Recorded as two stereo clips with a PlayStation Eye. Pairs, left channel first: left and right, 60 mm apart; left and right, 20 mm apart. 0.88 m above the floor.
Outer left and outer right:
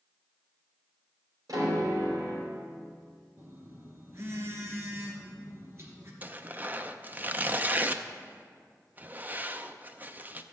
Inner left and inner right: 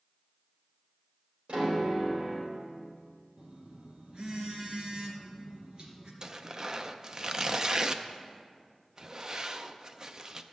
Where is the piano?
70° right (ahead or behind), 3.5 m.